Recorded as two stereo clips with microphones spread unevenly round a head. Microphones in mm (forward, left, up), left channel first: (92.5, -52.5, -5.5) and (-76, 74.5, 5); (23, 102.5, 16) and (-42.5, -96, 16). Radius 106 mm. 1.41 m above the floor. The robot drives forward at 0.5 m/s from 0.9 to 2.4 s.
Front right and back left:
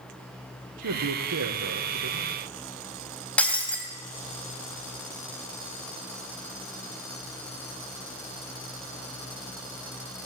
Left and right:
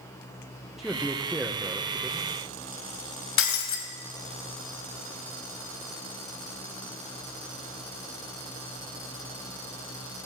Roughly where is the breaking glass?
Ahead left.